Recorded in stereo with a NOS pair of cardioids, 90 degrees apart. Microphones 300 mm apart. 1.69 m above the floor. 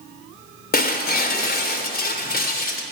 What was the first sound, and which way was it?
Breaking glass, 35° left.